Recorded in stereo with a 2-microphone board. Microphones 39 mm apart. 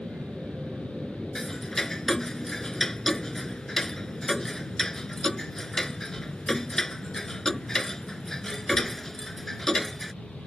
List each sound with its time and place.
0.0 s an aircraft: 30° right (ahead or behind); by 10.5 s 35° left (ahead or behind)
1.4 s ticking: 10° left (ahead or behind)